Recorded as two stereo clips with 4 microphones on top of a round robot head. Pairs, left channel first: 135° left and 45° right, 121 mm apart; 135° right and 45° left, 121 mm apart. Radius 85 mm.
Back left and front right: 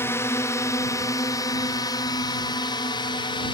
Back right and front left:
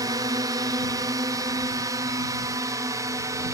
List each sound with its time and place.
0.0 s a drone: 80° left; by 3.5 s 100° left